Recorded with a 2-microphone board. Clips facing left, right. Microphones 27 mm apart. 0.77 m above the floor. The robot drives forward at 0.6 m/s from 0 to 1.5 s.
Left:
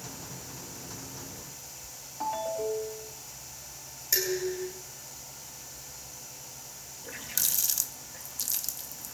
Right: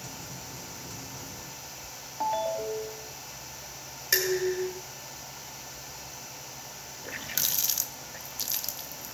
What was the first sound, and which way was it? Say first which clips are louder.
A ringtone: right 2 dB; 15° right (ahead or behind).